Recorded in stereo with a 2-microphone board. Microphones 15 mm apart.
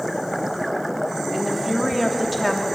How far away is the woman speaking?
About 3 m.